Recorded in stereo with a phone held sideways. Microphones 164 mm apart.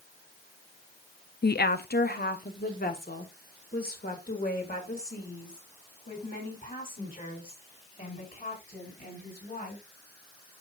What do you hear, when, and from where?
1.4 s a woman speaking: 70° left (ahead or behind), 0.6 m; by 9.8 s 55° left (ahead or behind), 6.5 m